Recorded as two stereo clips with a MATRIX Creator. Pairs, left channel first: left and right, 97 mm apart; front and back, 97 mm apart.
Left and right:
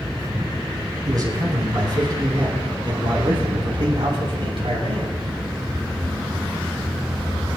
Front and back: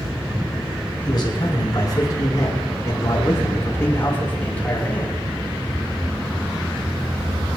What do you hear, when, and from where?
1.1 s a man speaking: 45° right, 8 m; by 5.2 s 75° right, 7 m